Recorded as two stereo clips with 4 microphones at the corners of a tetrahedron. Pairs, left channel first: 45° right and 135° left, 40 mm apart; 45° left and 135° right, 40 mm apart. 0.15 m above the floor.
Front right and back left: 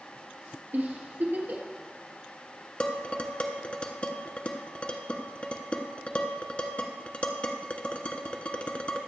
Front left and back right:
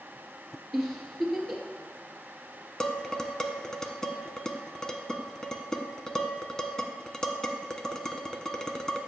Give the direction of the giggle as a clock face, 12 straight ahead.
8 o'clock.